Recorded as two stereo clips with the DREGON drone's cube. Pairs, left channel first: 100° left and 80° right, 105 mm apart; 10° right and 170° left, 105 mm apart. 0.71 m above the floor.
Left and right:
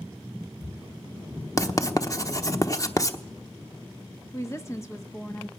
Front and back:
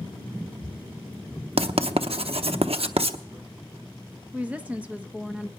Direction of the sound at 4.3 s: 110° left.